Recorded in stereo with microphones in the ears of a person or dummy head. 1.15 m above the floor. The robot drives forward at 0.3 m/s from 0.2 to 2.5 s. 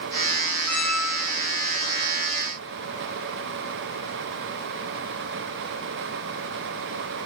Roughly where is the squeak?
Centre.